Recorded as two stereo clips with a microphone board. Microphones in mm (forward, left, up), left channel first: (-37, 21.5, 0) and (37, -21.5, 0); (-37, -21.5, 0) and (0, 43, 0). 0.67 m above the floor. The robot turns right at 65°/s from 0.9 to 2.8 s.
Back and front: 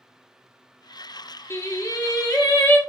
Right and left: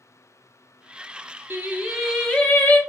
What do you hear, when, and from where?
1.5 s singing: 110° left, 1.0 m; by 2.8 s 165° right, 1.0 m